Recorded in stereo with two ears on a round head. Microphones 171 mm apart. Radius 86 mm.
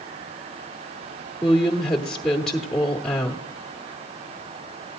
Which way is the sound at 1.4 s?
5° left (ahead or behind).